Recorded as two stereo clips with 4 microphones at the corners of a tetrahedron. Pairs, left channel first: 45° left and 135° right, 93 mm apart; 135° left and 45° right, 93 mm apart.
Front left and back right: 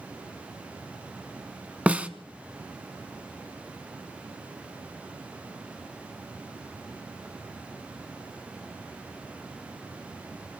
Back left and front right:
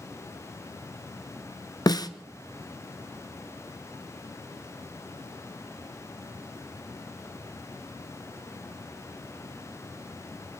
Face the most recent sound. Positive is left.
turn(degrees=155)